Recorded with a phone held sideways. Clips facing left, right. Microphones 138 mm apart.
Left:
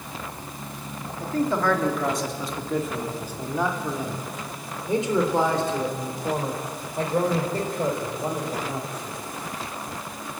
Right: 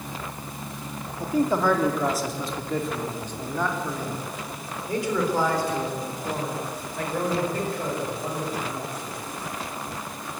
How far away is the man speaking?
About 2 m.